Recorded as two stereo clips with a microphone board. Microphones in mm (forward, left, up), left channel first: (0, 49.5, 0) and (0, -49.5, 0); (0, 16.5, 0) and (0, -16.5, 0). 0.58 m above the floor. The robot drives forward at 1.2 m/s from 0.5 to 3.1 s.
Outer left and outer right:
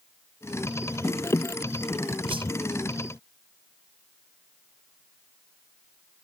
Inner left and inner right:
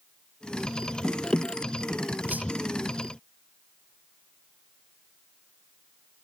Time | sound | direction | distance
2.3 | a whoosh | 70° right (ahead or behind) | ?